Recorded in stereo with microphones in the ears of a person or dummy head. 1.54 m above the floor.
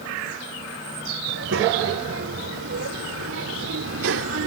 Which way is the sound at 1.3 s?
70° right (ahead or behind).